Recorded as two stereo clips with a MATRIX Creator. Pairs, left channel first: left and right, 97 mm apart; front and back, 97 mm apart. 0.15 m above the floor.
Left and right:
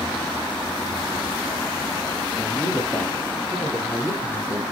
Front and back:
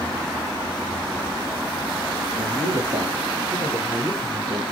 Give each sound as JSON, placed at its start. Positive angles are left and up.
{"t": 2.3, "sound": "a man speaking", "azimuth_deg": 170, "distance_m": 3.5}